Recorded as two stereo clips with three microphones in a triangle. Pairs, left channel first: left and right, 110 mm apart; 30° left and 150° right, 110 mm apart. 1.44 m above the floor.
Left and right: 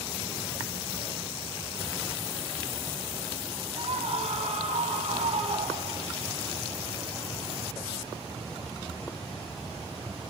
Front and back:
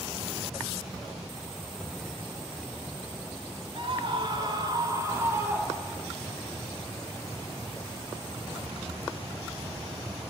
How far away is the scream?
About 4.5 m.